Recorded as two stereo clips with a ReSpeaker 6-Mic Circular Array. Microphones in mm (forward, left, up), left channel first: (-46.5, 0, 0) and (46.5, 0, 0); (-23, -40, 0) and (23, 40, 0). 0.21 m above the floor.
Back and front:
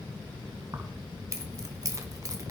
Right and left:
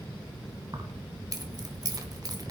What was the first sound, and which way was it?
Keys jangling, 40° left.